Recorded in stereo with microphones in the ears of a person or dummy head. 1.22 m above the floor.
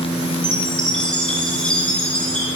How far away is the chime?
About 1.0 m.